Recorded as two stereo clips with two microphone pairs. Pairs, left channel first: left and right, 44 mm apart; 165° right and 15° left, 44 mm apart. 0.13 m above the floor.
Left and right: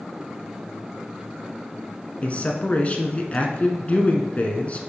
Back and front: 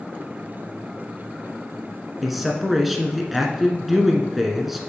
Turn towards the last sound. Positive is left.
turn(degrees=95)